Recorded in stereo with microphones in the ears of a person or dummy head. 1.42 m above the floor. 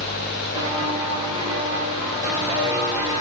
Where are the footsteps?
20° right (ahead or behind), 9.5 m; by 3.2 s 10° right (ahead or behind), 8 m.